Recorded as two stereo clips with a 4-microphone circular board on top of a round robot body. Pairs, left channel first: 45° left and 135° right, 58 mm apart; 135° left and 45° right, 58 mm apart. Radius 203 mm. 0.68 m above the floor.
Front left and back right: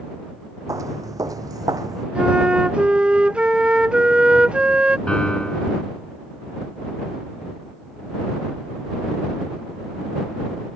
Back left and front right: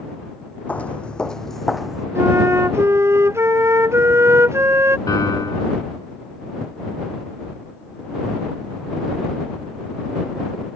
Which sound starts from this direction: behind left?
A piano, at 5.1 s.